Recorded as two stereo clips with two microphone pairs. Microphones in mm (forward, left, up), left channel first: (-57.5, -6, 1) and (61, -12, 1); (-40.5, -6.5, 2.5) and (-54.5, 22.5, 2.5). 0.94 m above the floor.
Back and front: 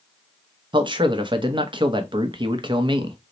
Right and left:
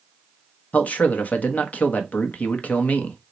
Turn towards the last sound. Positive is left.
turn(degrees=-40)